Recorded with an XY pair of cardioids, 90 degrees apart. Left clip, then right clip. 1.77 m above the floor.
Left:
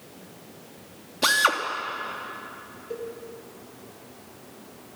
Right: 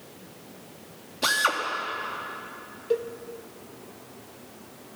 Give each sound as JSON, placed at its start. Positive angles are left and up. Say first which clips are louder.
{"t": 1.2, "sound": "a drill", "louder": "left 3 dB", "azimuth_deg": 30, "distance_m": 2.5}
{"t": 2.9, "sound": "a cowbell", "louder": "right 8 dB", "azimuth_deg": -65, "distance_m": 1.1}